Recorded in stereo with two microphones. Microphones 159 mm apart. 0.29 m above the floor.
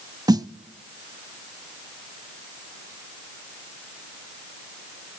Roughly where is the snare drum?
Right.